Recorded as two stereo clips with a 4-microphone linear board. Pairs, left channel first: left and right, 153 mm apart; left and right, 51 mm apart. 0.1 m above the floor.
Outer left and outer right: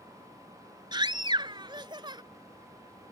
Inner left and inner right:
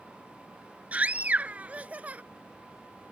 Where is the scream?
30° right (ahead or behind).